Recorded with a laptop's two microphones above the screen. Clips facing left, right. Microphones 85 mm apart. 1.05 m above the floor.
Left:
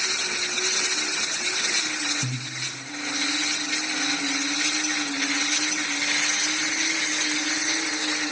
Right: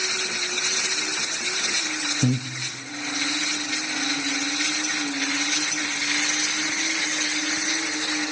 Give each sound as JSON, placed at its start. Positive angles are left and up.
{"t": 2.2, "sound": "breathing", "side_deg": -65, "distance_m": 0.6}